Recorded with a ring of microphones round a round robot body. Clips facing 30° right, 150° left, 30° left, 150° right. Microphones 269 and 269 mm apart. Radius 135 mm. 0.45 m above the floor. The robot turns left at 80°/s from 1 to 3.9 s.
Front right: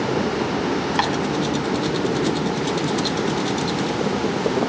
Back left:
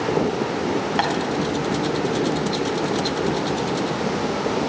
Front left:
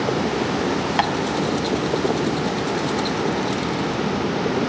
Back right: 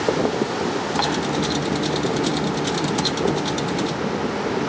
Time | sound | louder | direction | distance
1.0 | tapping | even, even | 45° left | 4 m